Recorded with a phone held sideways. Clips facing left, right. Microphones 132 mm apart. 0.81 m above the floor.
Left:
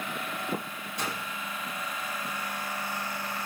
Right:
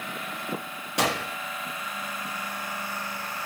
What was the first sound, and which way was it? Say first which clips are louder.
A gunshot: right 9 dB; 85° right.